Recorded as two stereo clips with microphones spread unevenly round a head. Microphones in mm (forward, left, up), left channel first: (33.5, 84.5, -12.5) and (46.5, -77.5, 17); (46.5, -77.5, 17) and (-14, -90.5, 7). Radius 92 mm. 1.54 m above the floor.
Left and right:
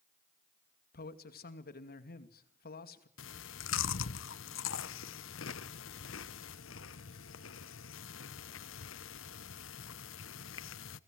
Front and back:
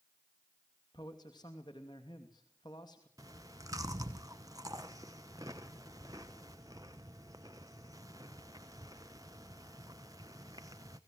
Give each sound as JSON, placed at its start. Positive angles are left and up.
{"t": 0.9, "sound": "a man speaking", "azimuth_deg": 70, "distance_m": 2.5}
{"t": 3.2, "sound": "chewing", "azimuth_deg": 120, "distance_m": 0.9}